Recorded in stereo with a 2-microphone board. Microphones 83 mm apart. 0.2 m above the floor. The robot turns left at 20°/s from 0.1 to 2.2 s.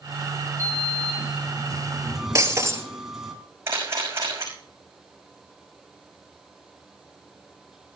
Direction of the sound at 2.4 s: 35° right (ahead or behind).